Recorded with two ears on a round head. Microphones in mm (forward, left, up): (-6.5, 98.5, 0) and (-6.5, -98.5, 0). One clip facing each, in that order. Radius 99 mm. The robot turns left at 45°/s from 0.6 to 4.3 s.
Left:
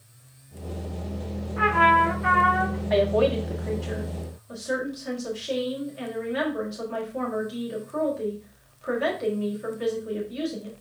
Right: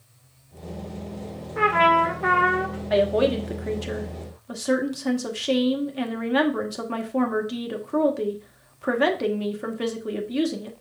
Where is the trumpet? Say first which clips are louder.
Right 2 dB; 70° right, 3 m; by 2.8 s 125° right, 3 m.